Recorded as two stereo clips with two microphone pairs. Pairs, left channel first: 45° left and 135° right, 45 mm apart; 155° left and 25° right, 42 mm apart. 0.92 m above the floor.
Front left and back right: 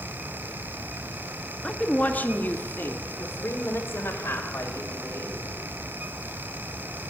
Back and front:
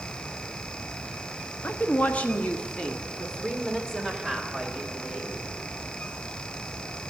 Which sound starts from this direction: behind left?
A woman speaking, at 1.6 s.